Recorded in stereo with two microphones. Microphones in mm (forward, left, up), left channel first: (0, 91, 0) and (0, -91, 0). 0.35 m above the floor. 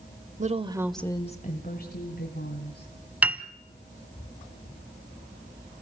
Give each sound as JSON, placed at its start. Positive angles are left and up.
{"t": 0.4, "sound": "a woman speaking", "side_deg": -40, "distance_m": 1.1}
{"t": 3.2, "sound": "a piano", "side_deg": -10, "distance_m": 0.7}